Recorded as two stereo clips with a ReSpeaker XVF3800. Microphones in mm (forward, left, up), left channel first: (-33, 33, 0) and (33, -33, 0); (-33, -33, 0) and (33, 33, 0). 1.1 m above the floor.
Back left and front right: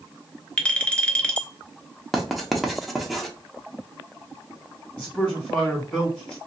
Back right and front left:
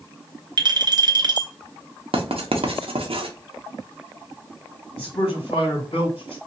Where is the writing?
45° left, 0.7 m.